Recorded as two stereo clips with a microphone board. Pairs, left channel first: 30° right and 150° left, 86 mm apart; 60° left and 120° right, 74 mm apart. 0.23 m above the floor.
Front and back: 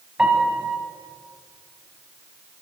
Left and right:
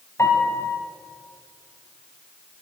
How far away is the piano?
About 1.5 m.